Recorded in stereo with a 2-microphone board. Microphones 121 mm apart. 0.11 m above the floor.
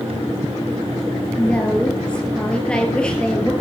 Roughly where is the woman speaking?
Centre.